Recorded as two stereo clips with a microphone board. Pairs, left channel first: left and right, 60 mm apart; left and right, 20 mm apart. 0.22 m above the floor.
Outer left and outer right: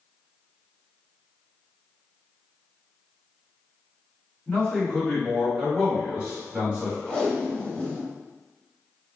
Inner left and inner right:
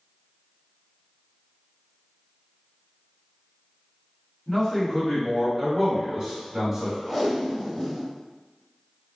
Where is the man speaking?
15° left (ahead or behind), 1.5 m; by 7.0 s 25° right (ahead or behind), 1.2 m.